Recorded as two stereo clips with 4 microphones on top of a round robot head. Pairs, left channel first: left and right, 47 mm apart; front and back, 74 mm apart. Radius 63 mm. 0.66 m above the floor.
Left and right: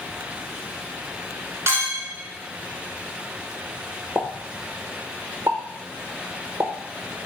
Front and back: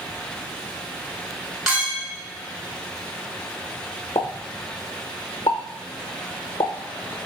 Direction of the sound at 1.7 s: 95° right.